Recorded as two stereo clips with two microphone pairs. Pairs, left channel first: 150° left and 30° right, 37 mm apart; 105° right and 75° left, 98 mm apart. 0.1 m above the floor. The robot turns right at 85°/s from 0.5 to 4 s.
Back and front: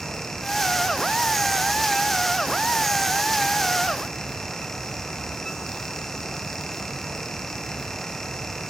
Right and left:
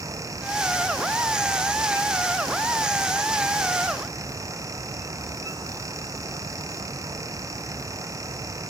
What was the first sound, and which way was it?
Only background noise.